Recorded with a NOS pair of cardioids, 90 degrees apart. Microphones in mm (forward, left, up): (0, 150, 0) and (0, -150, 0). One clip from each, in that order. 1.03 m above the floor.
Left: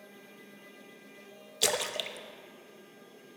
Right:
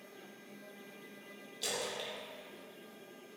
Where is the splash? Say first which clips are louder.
Left 8 dB; 70° left, 0.6 m.